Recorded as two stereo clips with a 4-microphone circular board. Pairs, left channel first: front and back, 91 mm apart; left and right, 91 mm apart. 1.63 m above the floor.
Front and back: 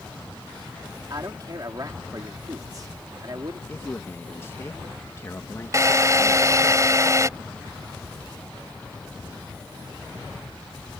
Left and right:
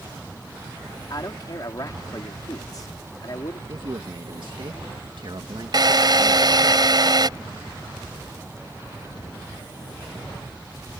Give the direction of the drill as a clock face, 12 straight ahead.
4 o'clock.